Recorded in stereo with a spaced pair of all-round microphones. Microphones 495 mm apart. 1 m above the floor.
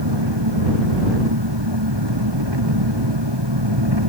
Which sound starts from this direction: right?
An engine running, at 0.0 s.